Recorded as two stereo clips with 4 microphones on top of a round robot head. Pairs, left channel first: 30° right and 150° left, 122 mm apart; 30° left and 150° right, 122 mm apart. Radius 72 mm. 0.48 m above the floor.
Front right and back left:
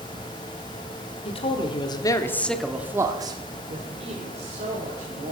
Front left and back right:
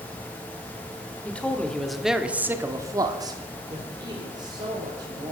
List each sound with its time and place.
1.2 s a man speaking: 45° right, 1.7 m; by 5.3 s 160° left, 3 m